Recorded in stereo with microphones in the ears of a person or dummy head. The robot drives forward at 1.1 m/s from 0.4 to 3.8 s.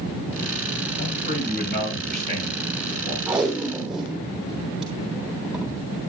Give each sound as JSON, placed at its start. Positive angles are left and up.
{"t": 1.0, "sound": "a man speaking", "side_deg": 60, "distance_m": 5.0}
{"t": 3.3, "sound": "tape being pulled", "side_deg": -5, "distance_m": 3.0}